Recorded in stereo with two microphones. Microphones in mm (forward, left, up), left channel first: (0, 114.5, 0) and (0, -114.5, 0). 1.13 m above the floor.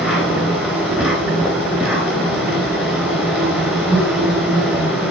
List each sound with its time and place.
0.0 s an insect: 5° right (ahead or behind), 3 m